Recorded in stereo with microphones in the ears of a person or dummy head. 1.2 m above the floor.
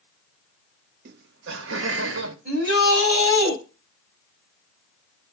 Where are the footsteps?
No footsteps in this recording.